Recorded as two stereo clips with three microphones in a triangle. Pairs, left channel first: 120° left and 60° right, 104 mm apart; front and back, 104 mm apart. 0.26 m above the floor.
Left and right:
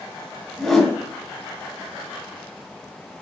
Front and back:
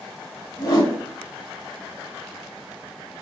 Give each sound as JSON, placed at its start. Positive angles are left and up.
{"t": 0.6, "sound": "a whoosh", "azimuth_deg": 35, "distance_m": 1.8}